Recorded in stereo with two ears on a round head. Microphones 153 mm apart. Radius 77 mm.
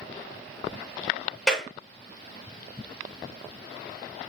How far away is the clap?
About 6 m.